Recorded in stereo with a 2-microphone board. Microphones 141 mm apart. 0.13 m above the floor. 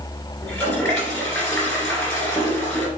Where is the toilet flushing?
15° left (ahead or behind), 2 m.